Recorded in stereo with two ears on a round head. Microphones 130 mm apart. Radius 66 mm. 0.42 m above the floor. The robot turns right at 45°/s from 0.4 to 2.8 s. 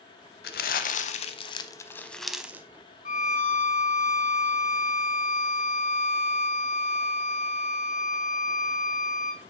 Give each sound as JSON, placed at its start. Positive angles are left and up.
{"t": 0.4, "sound": "crumpling", "side_deg": 85, "distance_m": 0.7}
{"t": 3.0, "sound": "a violin", "side_deg": 50, "distance_m": 1.1}